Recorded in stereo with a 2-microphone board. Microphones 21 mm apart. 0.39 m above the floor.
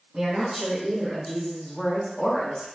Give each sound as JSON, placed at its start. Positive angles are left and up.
{"t": 0.1, "sound": "a woman speaking", "side_deg": -25, "distance_m": 1.5}